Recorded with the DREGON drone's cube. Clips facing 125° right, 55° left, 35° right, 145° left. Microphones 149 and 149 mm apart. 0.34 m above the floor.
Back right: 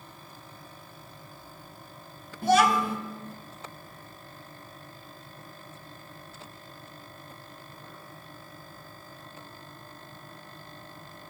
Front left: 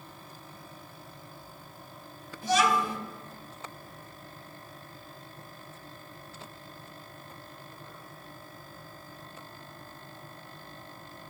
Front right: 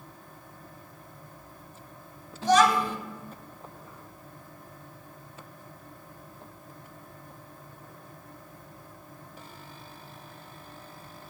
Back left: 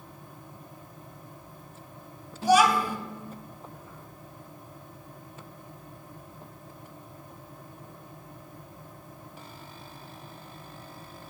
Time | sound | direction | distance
2.4 | a child speaking | 135° right | 0.8 m